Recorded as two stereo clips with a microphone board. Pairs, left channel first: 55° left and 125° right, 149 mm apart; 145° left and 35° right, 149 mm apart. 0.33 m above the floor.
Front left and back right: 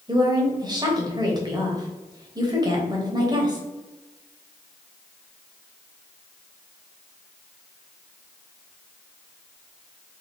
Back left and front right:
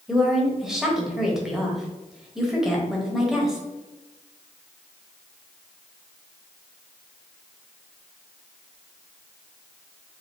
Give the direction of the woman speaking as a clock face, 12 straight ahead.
4 o'clock.